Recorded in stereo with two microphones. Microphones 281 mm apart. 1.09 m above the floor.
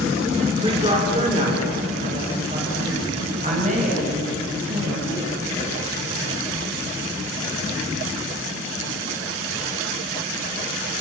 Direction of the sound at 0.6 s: 20° right (ahead or behind).